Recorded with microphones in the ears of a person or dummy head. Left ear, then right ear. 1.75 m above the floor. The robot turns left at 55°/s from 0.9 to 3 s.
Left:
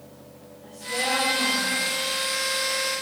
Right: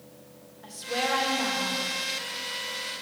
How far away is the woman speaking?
About 1.9 m.